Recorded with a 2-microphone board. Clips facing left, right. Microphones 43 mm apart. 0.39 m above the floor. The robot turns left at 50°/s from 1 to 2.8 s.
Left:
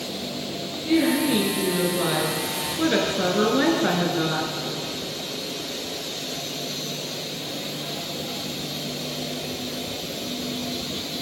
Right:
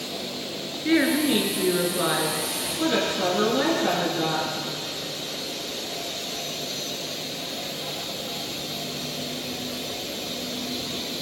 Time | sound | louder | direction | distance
0.8 | a woman speaking | even | 115° right | 5.5 m